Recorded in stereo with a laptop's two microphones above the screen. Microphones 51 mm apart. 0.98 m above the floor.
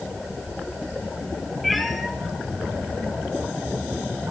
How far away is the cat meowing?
About 2.5 m.